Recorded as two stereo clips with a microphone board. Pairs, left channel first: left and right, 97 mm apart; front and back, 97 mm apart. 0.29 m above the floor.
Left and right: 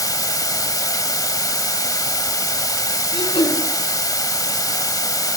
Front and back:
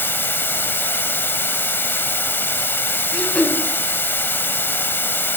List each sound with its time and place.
0.0 s running water: 60° left, 0.9 m
3.1 s throat clearing: 75° left, 4 m